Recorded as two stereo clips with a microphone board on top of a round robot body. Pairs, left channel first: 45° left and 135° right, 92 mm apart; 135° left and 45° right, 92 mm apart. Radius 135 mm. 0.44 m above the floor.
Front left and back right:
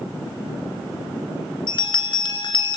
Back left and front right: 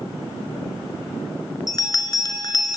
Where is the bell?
85° left, 1.8 m.